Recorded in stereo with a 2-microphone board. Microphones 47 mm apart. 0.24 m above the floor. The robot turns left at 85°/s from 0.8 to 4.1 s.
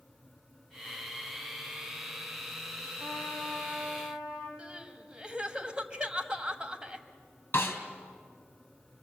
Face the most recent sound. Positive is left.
turn(degrees=55)  # may be behind; listen again after turning